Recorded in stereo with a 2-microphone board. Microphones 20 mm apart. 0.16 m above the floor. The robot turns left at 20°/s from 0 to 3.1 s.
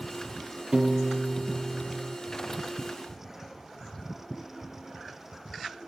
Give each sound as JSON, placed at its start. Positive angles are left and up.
{"t": 0.7, "sound": "a piano", "side_deg": -35, "distance_m": 0.6}